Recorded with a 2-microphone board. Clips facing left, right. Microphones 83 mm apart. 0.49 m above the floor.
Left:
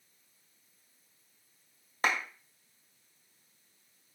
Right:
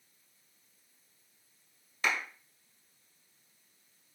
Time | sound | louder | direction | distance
2.0 | a clap | left 2 dB | 45° left (ahead or behind) | 2 m